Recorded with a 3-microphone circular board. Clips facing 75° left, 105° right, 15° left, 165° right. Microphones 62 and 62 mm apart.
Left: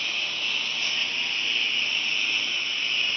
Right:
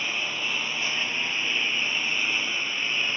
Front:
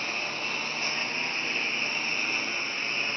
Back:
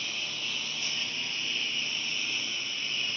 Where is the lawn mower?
30° right.